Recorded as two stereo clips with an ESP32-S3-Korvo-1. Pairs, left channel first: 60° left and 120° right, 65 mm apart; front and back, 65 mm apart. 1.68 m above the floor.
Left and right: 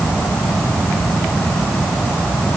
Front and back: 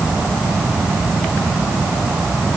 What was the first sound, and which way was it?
Only background noise.